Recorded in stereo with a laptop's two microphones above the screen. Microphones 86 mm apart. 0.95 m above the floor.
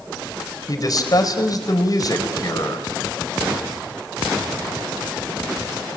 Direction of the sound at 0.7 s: 45° left (ahead or behind).